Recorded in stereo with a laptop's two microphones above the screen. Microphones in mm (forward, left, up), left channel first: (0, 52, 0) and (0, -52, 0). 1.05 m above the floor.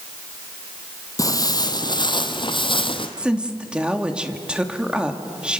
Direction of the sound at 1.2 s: 35° left (ahead or behind).